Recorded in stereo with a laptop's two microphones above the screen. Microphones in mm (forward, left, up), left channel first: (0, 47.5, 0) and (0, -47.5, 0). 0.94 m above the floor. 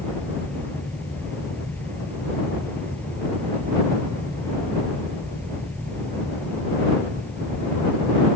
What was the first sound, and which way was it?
A fan, 15° left (ahead or behind).